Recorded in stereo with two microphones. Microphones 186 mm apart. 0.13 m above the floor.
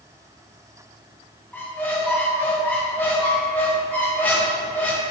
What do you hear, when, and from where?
1.5 s a squeak: 10° left (ahead or behind), 1.0 m